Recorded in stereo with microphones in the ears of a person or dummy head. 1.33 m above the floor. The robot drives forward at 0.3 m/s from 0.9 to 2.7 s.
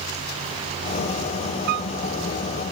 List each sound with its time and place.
1.7 s a piano: 55° right (ahead or behind), 0.8 m; by 1.9 s 50° right (ahead or behind), 0.8 m